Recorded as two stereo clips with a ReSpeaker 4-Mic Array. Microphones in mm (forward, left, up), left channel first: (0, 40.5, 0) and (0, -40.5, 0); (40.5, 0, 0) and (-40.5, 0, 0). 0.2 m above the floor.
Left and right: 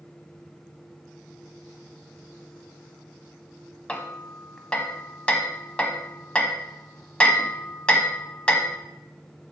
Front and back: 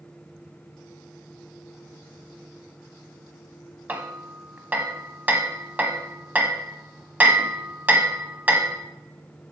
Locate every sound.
3.9 s hammering: 145° left, 1.1 m